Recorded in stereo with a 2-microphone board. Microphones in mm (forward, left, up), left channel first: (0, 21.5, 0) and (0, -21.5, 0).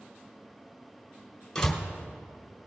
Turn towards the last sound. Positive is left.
turn(degrees=10)  # may be behind; listen again after turning